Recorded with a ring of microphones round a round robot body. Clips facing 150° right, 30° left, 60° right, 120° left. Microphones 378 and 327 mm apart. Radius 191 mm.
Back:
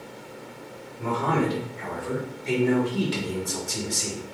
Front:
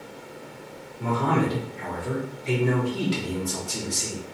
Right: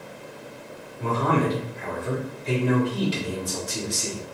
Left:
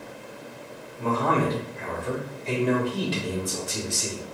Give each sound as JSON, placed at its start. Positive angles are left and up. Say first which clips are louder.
{"t": 1.0, "sound": "a man speaking", "louder": "front 1 dB, right 1 dB", "azimuth_deg": -20, "distance_m": 1.9}